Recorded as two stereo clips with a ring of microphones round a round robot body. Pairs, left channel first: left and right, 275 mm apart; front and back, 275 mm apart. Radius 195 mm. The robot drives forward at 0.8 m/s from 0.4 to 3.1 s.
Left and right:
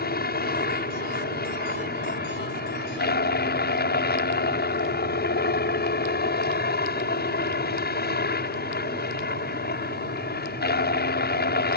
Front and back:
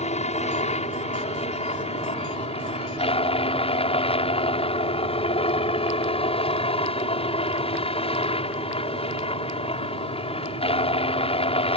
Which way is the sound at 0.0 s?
55° left.